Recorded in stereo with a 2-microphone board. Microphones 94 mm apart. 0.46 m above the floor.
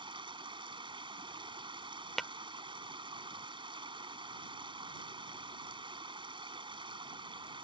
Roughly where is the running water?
Right.